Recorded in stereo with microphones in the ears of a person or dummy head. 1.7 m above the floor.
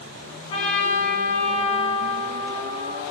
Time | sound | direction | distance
0.5 | a trumpet | 40° left (ahead or behind) | 1.3 m